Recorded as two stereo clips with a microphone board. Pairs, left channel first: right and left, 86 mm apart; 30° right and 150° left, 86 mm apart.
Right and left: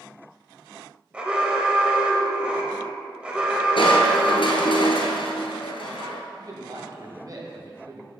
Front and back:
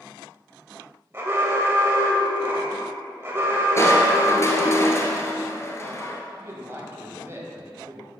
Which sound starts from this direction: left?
A man speaking, at 6.4 s.